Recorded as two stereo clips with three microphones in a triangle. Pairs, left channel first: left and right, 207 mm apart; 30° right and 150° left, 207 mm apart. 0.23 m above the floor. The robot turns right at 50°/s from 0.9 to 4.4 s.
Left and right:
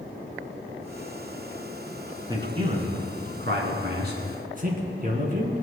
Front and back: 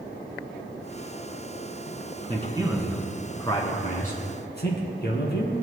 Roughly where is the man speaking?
Behind right.